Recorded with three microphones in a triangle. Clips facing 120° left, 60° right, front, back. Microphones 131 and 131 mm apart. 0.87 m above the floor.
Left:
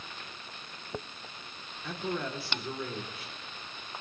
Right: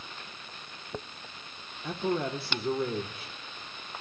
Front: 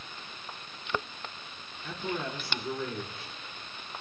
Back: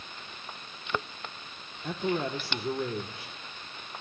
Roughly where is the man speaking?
Behind right.